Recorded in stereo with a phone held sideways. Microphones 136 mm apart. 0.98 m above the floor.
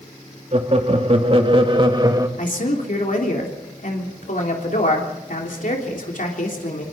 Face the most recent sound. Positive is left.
turn(degrees=70)  # may be behind; listen again after turning